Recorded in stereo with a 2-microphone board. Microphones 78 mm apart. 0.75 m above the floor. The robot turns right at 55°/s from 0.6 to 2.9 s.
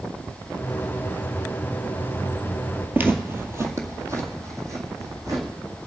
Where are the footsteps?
25° right (ahead or behind), 1.1 m; by 5.5 s 40° right (ahead or behind), 2.5 m.